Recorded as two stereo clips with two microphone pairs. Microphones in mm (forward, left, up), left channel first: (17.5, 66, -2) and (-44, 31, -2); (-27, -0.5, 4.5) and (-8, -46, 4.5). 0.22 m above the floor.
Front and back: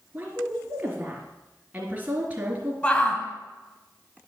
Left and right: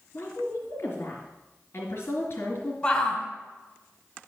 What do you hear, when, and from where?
0.1 s a woman speaking: 145° left, 2 m
2.8 s a shout: 75° left, 1.4 m